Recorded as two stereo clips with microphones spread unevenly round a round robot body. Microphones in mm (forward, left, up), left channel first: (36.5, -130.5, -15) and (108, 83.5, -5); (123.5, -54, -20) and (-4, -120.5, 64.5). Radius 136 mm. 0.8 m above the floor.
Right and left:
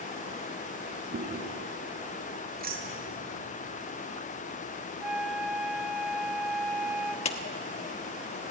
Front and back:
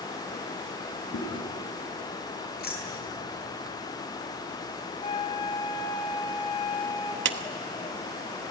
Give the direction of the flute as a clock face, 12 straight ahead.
1 o'clock.